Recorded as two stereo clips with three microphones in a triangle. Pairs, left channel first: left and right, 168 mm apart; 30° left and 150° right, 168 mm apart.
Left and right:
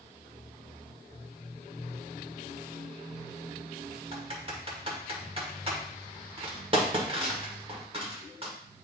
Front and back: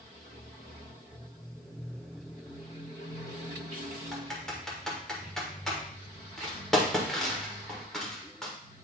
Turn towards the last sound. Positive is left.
turn(degrees=-55)